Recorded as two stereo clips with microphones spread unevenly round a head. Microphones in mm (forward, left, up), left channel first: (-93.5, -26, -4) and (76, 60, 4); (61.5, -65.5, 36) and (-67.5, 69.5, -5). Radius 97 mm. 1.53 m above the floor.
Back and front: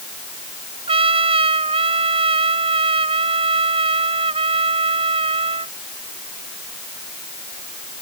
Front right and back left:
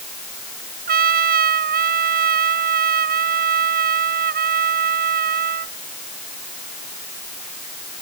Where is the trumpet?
90° left.